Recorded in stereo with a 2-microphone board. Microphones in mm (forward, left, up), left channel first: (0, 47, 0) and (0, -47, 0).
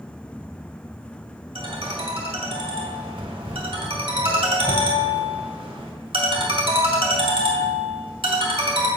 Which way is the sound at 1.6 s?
75° right (ahead or behind).